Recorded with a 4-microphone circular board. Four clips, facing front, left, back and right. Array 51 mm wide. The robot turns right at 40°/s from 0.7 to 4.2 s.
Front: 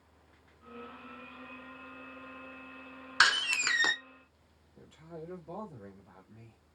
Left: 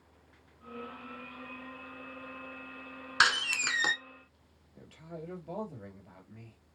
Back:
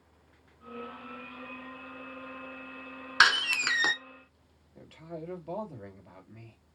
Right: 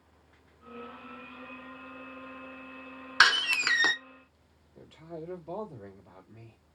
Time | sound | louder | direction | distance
3.2 | a door slam | right 4 dB, back 3 dB | 135° right | 0.7 m
4.8 | a man speaking | right 3 dB, back 4 dB | 175° left | 2.5 m